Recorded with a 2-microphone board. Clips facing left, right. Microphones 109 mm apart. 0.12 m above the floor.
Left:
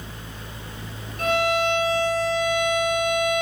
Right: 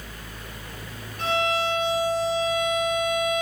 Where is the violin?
60° left (ahead or behind), 0.5 m.